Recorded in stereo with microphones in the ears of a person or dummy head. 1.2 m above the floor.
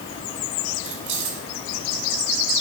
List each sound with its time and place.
0.8 s keys jangling: 75° right (ahead or behind), 5 m